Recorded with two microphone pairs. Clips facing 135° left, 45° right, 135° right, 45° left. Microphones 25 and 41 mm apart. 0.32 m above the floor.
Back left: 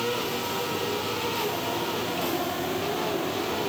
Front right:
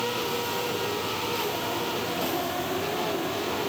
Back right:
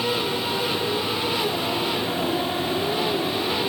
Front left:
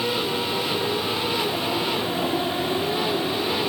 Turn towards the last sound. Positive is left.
No sound to turn to.